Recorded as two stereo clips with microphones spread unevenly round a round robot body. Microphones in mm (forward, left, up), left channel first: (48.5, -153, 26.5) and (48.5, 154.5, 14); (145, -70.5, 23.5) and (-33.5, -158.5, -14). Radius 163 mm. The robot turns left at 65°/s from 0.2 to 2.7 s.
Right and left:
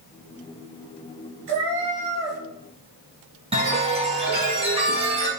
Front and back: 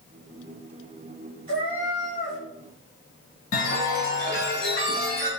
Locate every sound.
1.5 s a cat meowing: 105° left, 3.5 m; by 2.4 s 45° left, 3.5 m
3.5 s a chime: 20° left, 3 m